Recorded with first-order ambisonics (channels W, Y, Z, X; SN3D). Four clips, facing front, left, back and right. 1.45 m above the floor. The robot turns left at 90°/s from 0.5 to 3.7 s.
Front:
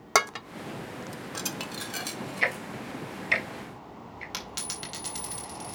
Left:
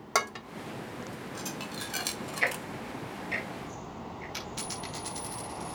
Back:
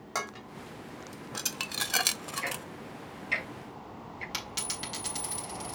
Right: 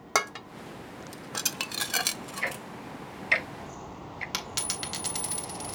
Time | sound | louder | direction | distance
0.1 | dishes clattering | right 1 dB, front 11 dB | 10° right | 0.5 m
2.4 | ticking | left 4 dB, front 8 dB | 30° left | 1.1 m
4.3 | a dropped coin | right 6 dB, even | 80° right | 2.5 m